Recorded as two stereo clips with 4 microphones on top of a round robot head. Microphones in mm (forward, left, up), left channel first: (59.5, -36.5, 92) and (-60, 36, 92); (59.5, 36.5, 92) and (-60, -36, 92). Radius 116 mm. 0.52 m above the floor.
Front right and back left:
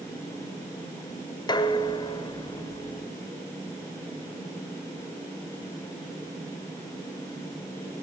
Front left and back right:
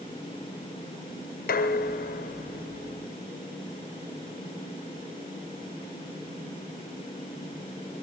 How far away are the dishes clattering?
About 2 m.